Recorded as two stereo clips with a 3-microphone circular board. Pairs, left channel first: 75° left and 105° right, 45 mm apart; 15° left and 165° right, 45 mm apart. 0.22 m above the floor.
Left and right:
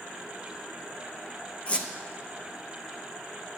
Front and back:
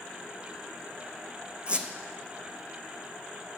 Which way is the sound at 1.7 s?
130° left.